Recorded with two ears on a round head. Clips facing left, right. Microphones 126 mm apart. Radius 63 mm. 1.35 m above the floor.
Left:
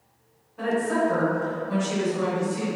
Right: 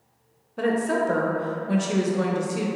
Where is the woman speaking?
70° right (ahead or behind), 0.7 m.